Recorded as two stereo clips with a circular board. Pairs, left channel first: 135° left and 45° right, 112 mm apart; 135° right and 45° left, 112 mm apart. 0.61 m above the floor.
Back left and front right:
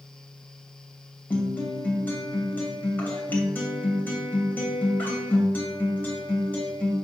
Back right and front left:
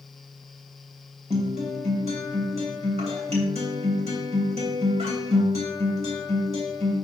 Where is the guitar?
60° left, 2.5 m.